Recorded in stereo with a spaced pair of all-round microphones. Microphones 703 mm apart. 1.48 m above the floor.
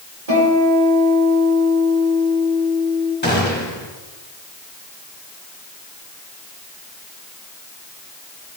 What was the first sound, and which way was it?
A guitar, 60° right (ahead or behind).